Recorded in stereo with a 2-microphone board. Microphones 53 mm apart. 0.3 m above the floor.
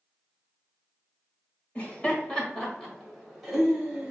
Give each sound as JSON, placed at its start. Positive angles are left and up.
{"t": 1.8, "sound": "laughter", "side_deg": 25, "distance_m": 1.6}